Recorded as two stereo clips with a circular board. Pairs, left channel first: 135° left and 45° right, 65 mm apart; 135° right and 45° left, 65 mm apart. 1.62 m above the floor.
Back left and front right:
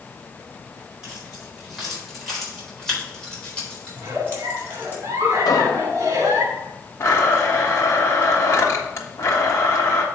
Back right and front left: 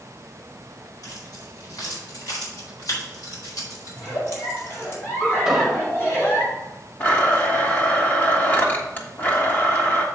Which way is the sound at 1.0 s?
125° right.